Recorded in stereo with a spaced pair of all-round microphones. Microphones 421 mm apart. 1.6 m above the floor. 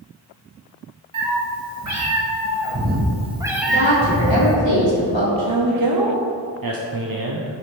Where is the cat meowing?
45° right (ahead or behind), 1.8 m; by 4.6 s 25° left (ahead or behind), 1.0 m.